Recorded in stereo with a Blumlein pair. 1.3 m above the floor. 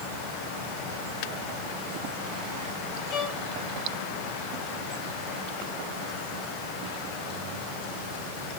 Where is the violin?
35° left, 4.5 m.